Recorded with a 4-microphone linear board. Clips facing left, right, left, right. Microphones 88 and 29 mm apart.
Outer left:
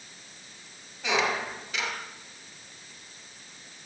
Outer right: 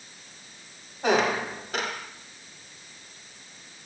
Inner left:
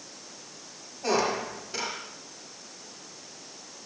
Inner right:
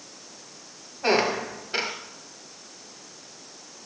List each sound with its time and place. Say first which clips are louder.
1.0 s a squeak: outer right 4 dB, inner right 4 dB; 45° right (ahead or behind), 3.5 m